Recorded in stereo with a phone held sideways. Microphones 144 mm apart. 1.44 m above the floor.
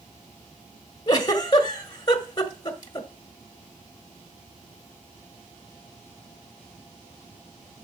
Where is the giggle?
30° left (ahead or behind), 1.4 m.